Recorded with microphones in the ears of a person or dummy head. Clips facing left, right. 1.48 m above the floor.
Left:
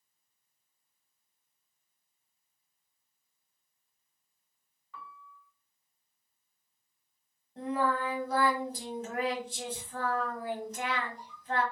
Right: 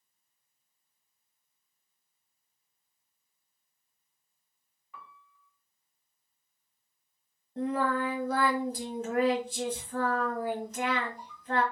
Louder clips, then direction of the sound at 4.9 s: Left 3 dB; 20° right (ahead or behind).